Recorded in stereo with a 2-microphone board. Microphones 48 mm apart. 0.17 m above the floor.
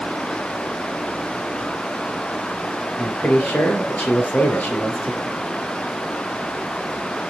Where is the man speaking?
40° left (ahead or behind), 3.5 m.